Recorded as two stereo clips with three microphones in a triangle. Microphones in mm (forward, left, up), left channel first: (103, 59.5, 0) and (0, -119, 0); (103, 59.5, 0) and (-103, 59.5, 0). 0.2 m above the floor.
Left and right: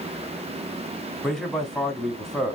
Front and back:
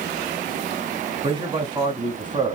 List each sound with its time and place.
1.2 s a man speaking: 145° left, 1.3 m